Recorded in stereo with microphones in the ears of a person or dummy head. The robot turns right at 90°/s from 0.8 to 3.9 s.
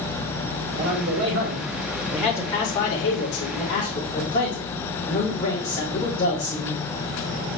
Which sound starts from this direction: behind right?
A man speaking, at 0.7 s.